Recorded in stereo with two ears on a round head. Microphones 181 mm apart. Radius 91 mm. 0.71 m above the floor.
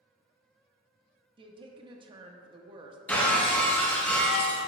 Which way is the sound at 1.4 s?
25° right (ahead or behind).